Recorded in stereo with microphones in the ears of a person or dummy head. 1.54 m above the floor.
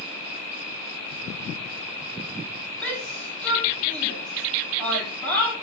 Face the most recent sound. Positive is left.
turn(degrees=5)  # may be behind; listen again after turning